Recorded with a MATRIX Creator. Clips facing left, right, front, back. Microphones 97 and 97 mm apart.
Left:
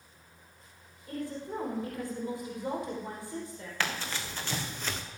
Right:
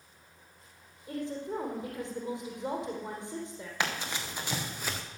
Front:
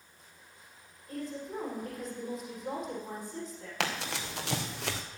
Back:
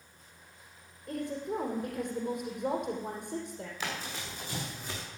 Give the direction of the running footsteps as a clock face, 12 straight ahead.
1 o'clock.